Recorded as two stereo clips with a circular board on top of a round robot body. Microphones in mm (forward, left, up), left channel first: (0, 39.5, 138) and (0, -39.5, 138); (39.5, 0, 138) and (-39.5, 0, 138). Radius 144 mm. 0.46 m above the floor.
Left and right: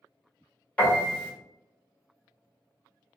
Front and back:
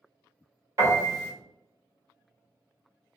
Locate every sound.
0.8 s a piano: 155° left, 1.5 m